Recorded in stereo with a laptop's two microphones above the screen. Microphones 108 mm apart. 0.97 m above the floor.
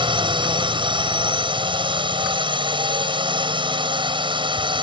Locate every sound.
0.0 s a drone: 50° right (ahead or behind)